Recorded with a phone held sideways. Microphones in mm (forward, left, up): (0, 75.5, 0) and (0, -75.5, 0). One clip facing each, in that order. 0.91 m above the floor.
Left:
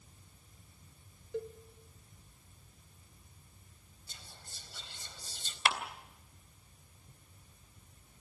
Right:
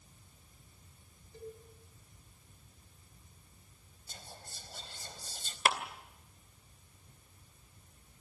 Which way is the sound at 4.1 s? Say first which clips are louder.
Right 5 dB; 40° right (ahead or behind).